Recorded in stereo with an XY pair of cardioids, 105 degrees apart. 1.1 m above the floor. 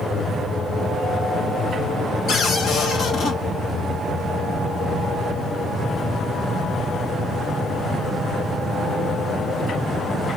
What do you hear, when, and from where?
2.3 s a cupboard door: 55° left, 1.6 m